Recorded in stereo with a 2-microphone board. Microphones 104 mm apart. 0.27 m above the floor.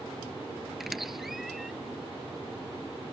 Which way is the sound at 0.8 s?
Centre (ahead or behind).